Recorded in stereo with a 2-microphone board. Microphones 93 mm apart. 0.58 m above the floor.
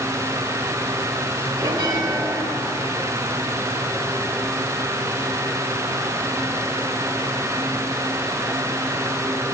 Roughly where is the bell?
Right.